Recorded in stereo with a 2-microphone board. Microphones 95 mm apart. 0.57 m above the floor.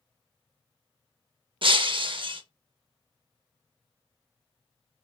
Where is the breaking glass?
60° right (ahead or behind), 0.6 m.